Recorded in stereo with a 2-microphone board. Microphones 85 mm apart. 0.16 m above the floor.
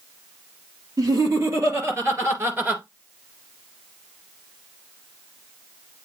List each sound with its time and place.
1.0 s laughter: 40° right (ahead or behind), 3 m; by 2.8 s 20° right (ahead or behind), 2 m